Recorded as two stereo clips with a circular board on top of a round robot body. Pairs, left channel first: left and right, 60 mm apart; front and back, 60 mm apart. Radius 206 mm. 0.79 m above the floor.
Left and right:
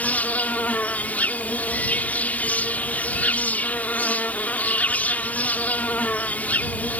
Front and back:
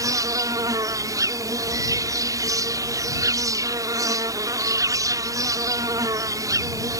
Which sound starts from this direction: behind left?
An insect, at 0.0 s.